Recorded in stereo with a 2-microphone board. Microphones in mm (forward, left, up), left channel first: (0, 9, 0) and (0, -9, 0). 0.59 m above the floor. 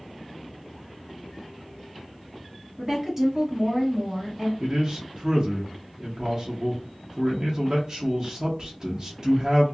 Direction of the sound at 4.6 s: 35° right (ahead or behind).